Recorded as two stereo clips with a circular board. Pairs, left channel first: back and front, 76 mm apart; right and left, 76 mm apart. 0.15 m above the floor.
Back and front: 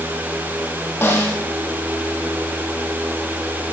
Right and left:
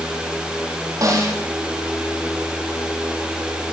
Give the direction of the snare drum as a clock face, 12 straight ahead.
8 o'clock.